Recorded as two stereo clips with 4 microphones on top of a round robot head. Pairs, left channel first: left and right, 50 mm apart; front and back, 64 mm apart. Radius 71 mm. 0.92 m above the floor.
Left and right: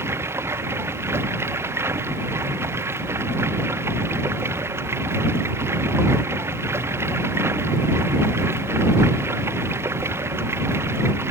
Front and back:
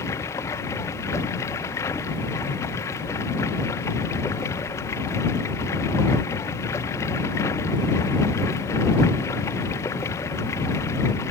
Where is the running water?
55° right.